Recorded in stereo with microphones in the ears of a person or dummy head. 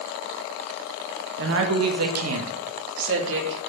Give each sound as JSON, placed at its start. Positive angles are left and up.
{"t": 1.4, "sound": "a woman speaking", "side_deg": -60, "distance_m": 1.3}